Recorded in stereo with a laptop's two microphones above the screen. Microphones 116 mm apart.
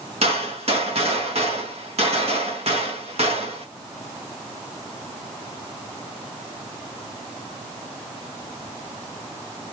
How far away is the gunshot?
About 1.5 m.